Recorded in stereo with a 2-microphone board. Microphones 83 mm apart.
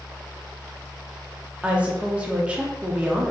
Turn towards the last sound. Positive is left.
turn(degrees=-15)  # may be behind; listen again after turning